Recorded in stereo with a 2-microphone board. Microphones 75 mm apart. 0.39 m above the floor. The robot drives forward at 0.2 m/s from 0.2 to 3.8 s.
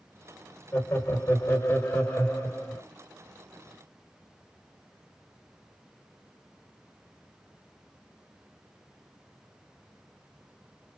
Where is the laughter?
35° left (ahead or behind), 1.2 m; by 2.8 s 25° left (ahead or behind), 1.5 m.